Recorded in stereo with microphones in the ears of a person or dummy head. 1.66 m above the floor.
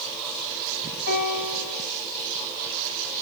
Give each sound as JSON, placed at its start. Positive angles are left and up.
{"t": 1.1, "sound": "a piano", "side_deg": 70, "distance_m": 2.0}